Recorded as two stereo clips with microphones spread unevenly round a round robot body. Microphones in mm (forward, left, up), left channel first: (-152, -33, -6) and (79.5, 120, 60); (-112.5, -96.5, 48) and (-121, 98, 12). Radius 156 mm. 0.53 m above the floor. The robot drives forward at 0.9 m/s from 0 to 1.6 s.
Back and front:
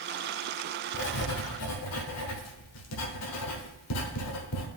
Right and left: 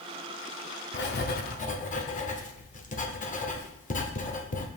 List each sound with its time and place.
0.9 s writing: 110° right, 0.9 m; by 4.7 s 140° right, 1.2 m